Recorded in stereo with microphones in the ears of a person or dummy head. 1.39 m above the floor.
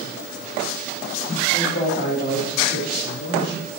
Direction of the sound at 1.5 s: 30° left (ahead or behind).